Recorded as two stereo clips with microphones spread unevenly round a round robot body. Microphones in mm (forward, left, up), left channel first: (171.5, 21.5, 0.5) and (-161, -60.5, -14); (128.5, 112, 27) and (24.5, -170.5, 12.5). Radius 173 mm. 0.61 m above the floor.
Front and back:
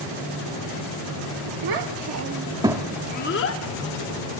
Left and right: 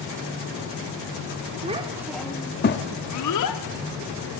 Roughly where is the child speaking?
Behind.